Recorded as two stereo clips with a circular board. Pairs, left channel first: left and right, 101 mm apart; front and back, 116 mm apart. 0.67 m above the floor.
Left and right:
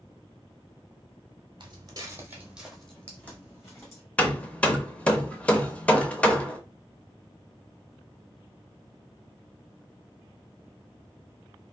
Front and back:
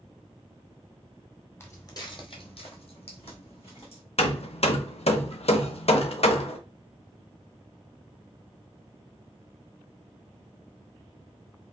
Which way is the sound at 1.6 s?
65° right.